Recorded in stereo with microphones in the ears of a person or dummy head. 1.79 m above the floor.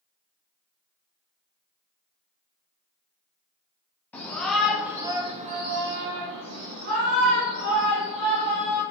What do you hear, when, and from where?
4.1 s a shout: 10° left (ahead or behind), 1.1 m; by 8.8 s 60° right (ahead or behind), 2 m